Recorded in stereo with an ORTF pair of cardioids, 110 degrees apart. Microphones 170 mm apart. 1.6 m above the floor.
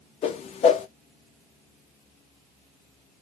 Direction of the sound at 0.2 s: 40° left.